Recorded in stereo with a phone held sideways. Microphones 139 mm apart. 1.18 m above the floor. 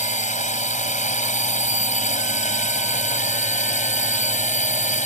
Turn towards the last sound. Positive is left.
turn(degrees=60)  # may be behind; listen again after turning